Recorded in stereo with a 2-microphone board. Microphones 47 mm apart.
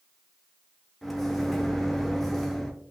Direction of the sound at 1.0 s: Centre (ahead or behind).